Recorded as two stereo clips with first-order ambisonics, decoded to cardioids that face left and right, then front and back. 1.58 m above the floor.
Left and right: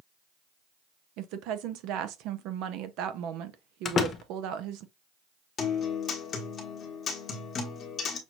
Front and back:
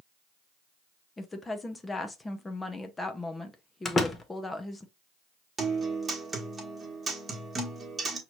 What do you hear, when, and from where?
1.2 s a woman speaking: 75° right, 0.8 m
3.9 s a door slam: 55° left, 0.7 m
5.6 s a guitar: 120° left, 1.3 m